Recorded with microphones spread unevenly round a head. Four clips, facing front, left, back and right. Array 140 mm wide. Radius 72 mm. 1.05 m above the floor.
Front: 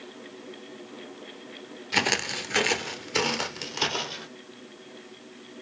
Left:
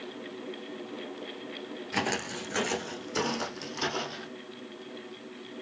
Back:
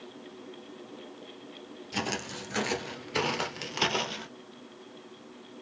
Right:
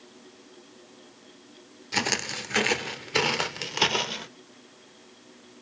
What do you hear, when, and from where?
1.9 s footsteps: 10° right, 1.2 m; by 4.3 s 95° right, 1.6 m